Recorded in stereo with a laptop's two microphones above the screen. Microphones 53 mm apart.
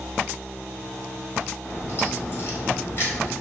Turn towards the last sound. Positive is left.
turn(degrees=40)  # may be behind; listen again after turning